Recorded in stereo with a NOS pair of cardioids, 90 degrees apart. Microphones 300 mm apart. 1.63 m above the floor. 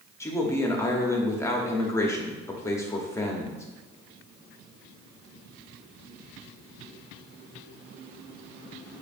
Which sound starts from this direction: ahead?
A man speaking, at 0.2 s.